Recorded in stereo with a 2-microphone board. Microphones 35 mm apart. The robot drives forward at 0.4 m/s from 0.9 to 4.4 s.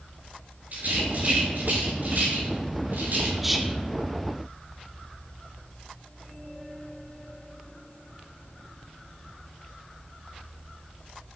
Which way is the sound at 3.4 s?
5° right (ahead or behind).